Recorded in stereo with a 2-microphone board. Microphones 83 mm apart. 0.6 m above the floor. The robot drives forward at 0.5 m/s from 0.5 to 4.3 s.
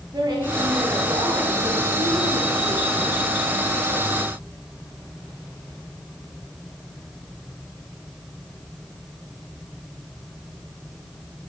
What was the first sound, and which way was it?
A woman speaking, 55° right (ahead or behind).